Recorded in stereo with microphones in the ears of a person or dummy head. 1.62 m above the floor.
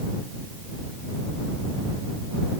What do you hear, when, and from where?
Only background noise.